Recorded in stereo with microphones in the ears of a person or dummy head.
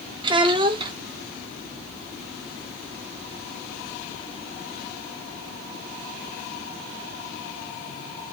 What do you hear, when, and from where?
0.2 s a child speaking: 35° right (ahead or behind), 0.5 m